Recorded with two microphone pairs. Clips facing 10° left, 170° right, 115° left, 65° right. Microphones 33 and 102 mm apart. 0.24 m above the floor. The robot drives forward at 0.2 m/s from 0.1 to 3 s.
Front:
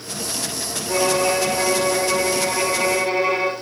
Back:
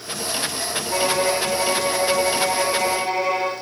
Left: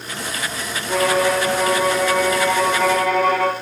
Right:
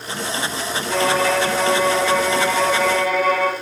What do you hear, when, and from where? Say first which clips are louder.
0.9 s a violin: front 2 dB, left 1 dB; 45° left, 0.7 m; by 3.5 s 80° left, 0.5 m